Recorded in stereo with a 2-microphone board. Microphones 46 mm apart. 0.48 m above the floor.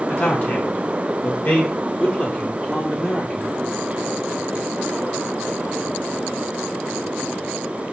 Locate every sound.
0.1 s a man speaking: 35° left (ahead or behind), 1.6 m; by 3.5 s 5° left (ahead or behind), 1.1 m